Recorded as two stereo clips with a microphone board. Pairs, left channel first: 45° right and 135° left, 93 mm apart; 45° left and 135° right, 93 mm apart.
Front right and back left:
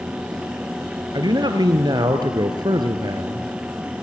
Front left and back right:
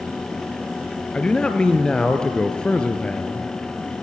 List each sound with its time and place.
1.1 s a man speaking: 125° left, 1.9 m